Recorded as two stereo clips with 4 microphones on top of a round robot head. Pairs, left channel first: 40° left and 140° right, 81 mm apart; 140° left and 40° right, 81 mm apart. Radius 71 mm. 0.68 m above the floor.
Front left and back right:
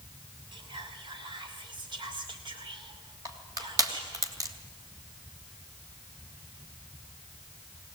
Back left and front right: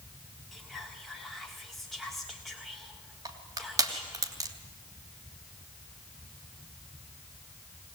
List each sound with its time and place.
0.5 s whispering: 135° right, 1.7 m
3.2 s crushing: 90° right, 3 m